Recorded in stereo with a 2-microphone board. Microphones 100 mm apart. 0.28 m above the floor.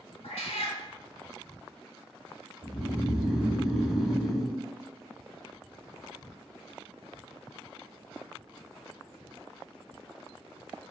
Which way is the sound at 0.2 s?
80° left.